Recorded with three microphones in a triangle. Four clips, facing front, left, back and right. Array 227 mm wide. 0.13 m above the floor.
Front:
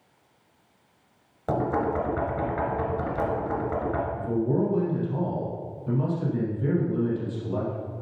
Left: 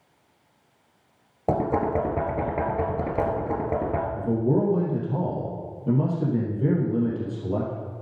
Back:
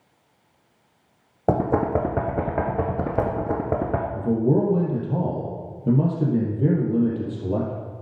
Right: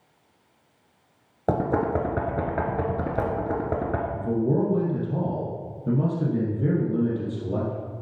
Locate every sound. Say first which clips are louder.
1.5 s knocking: even, back 4 dB; 170° right, 1.8 m
4.2 s a man speaking: even, back 7 dB; 175° right, 3.5 m